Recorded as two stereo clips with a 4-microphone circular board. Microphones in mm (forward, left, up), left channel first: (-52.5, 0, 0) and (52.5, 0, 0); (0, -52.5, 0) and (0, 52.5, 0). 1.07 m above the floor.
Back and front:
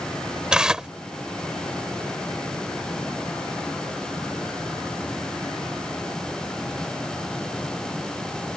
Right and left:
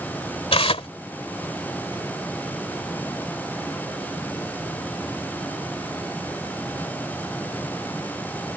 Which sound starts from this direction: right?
Tearing paper, at 0.5 s.